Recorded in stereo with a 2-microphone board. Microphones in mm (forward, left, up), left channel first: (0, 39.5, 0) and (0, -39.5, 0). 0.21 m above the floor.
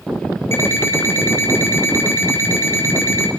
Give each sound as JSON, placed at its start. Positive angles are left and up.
{"t": 0.5, "sound": "an alarm clock", "side_deg": 35, "distance_m": 1.3}